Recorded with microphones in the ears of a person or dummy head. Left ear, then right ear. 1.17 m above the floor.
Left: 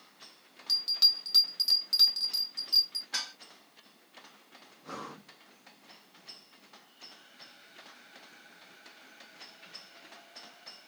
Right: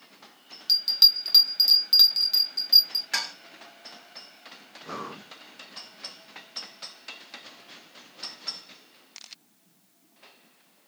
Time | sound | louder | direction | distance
0.7 | a bell | right 6 dB | 20° right (ahead or behind) | 0.9 m
3.1 | dishes clattering | right 5 dB | 70° right (ahead or behind) | 3 m
4.8 | breathing | right 6 dB | 5° right (ahead or behind) | 0.6 m